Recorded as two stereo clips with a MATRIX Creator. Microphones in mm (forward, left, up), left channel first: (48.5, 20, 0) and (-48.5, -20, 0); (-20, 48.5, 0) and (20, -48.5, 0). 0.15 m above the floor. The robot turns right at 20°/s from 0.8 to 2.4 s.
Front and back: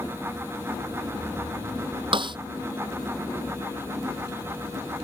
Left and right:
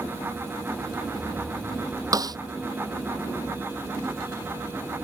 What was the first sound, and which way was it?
A snare drum, 120° right.